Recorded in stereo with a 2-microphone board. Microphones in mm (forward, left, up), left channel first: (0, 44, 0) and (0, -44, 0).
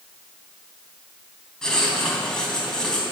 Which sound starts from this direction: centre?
Writing, at 1.6 s.